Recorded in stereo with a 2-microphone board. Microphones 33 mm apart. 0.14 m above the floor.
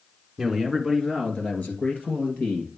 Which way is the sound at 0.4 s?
Centre (ahead or behind).